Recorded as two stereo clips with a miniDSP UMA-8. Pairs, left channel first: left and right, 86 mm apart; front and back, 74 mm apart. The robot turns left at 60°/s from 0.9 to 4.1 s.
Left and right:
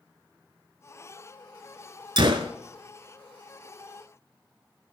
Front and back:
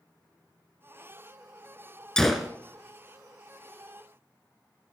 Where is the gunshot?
80° right, 0.6 m; by 2.5 s 100° right, 0.6 m.